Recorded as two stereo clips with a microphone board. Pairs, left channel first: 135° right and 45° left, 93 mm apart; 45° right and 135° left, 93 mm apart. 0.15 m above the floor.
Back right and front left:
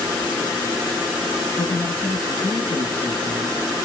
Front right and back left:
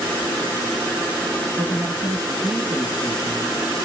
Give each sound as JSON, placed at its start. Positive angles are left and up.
{"t": 1.6, "sound": "a man speaking", "azimuth_deg": 180, "distance_m": 1.6}